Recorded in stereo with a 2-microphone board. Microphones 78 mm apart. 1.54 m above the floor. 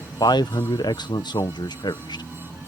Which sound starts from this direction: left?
A man speaking, at 0.2 s.